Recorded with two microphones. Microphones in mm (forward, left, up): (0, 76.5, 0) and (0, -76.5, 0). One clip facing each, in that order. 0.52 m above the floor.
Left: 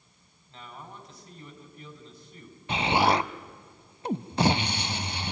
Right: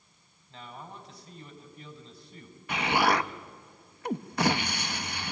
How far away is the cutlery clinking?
No cutlery clinking in this recording.